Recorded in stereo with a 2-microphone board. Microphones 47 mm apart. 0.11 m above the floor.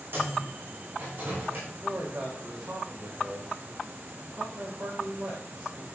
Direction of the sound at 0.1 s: 50° right (ahead or behind).